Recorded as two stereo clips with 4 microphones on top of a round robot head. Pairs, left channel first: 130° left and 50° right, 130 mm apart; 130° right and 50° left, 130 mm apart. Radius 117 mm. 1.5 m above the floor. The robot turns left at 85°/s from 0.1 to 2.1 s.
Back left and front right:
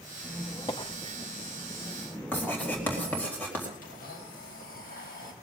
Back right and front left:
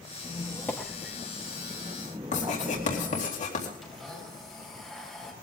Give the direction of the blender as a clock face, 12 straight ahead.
7 o'clock.